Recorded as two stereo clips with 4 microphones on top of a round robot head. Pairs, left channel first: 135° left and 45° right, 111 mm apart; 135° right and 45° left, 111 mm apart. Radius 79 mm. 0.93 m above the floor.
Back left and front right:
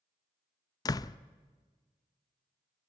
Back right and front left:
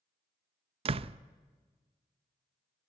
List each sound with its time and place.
0.8 s a door slam: 80° left, 0.6 m